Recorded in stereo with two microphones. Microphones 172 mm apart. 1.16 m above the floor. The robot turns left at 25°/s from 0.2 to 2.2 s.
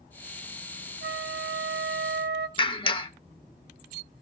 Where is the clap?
30° left (ahead or behind), 0.8 m.